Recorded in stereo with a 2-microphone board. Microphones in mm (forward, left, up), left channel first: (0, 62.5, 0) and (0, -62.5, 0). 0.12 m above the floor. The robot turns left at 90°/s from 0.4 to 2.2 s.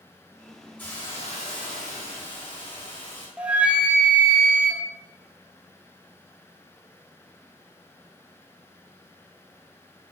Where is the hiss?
165° left, 3 m; by 3.3 s 40° left, 3 m.